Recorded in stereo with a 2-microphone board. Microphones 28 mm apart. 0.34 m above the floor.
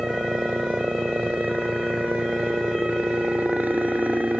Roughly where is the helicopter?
Right.